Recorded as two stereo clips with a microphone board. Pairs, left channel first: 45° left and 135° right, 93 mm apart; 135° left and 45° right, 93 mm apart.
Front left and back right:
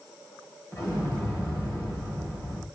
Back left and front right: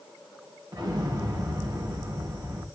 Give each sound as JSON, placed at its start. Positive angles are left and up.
{"t": 0.7, "sound": "an explosion", "azimuth_deg": -10, "distance_m": 3.0}